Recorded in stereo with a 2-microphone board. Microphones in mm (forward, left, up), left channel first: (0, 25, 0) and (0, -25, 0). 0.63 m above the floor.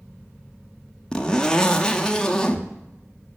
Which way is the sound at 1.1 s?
15° left (ahead or behind).